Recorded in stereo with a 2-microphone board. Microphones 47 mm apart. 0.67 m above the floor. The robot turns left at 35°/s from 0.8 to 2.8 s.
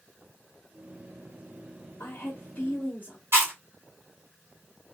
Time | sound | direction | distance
2.0 | a woman speaking | 50° left (ahead or behind) | 1.2 m
3.3 | chewing | 50° right (ahead or behind) | 1.5 m